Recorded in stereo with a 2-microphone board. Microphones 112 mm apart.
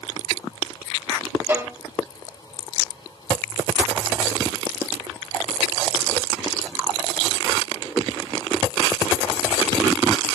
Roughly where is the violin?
Centre.